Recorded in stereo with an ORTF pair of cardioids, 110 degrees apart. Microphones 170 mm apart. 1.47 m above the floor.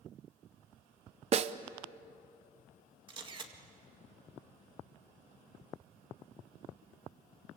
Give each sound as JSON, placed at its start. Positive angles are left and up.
{"t": 1.3, "sound": "a snare drum", "azimuth_deg": -40, "distance_m": 0.9}
{"t": 3.1, "sound": "a camera shutter", "azimuth_deg": -30, "distance_m": 2.0}